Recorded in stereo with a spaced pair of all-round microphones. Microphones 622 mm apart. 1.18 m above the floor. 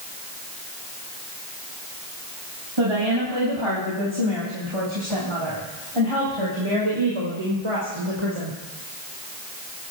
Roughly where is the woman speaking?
Right.